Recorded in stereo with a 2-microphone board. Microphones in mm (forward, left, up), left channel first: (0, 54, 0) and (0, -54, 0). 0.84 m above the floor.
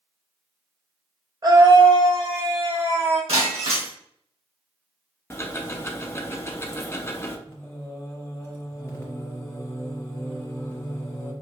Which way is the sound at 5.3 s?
25° left (ahead or behind).